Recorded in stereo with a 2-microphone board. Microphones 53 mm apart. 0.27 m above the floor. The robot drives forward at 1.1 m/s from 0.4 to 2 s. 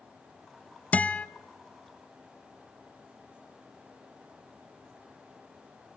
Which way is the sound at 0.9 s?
30° left (ahead or behind).